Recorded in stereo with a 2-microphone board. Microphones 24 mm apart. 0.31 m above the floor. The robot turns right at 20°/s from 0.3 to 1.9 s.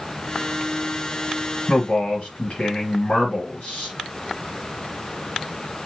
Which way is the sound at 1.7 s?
60° left (ahead or behind).